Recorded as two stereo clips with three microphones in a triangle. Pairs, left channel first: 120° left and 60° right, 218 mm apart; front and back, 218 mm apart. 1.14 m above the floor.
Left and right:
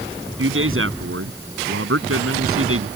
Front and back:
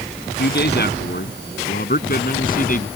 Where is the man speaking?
40° right; by 2.9 s 50° right.